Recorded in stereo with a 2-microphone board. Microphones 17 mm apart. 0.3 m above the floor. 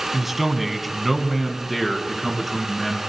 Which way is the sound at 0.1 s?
10° right (ahead or behind).